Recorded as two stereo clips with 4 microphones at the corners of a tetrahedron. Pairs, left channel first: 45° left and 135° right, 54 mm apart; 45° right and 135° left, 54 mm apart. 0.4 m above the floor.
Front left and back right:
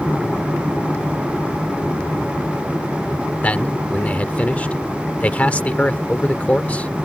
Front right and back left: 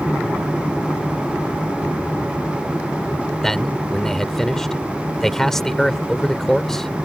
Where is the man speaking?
30° left.